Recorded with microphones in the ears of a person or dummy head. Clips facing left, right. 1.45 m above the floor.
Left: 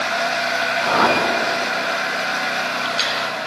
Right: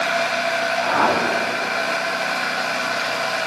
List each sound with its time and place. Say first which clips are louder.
0.8 s a whoosh: left 3 dB; 40° left (ahead or behind), 1.8 m